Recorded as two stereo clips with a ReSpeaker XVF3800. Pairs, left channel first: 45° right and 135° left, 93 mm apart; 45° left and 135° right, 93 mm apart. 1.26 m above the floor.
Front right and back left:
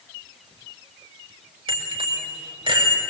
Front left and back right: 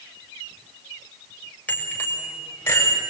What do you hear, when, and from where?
1.7 s a bicycle bell: 120° left, 4 m; by 3.0 s 105° left, 4.5 m